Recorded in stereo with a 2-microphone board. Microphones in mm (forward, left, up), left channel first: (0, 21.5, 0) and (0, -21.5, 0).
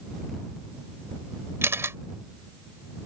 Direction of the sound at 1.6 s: 80° right.